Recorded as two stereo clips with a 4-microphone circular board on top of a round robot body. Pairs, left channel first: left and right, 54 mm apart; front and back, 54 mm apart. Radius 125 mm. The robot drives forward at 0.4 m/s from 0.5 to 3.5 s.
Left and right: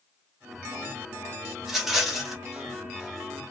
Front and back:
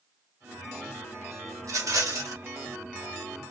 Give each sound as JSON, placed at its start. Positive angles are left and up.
{"t": 1.6, "sound": "a rattle", "azimuth_deg": -175, "distance_m": 1.2}